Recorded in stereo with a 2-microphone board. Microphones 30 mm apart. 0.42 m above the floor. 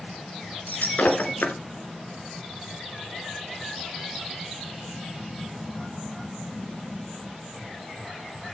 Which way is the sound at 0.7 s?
75° left (ahead or behind).